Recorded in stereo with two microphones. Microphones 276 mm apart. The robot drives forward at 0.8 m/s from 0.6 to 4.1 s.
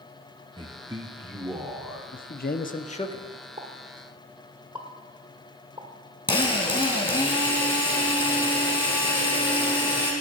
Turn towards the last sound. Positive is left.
turn(degrees=15)  # may be behind; listen again after turning